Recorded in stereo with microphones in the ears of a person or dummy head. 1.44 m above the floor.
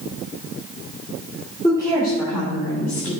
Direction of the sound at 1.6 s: 20° left (ahead or behind).